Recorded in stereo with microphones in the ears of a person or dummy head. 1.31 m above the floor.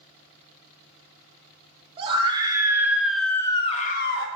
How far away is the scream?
About 1.2 m.